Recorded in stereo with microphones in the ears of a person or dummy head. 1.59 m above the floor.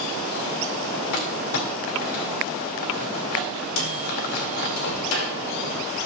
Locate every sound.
1.1 s crumpling: 65° left (ahead or behind), 2.5 m
3.8 s a microwave: 80° left, 3.5 m